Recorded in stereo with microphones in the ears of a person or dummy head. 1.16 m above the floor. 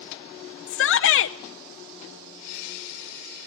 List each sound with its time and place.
0.7 s a shout: 55° left (ahead or behind), 0.5 m